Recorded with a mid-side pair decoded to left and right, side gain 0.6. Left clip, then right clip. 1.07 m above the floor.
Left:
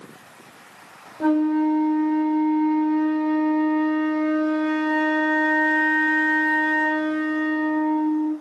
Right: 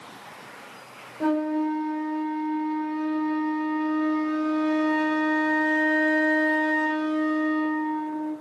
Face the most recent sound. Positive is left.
turn(degrees=20)